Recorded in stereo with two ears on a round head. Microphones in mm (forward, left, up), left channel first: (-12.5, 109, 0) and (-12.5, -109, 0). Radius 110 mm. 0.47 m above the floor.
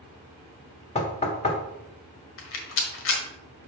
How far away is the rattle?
About 1.7 m.